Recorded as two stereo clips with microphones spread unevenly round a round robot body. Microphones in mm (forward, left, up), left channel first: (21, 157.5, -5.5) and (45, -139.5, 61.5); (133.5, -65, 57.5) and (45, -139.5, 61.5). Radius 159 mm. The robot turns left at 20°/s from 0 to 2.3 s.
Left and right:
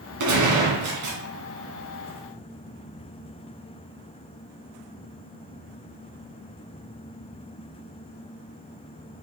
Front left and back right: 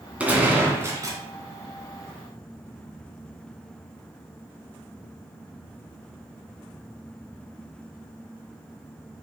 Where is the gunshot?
60° right, 2.5 m; by 1.2 s 80° right, 2.5 m.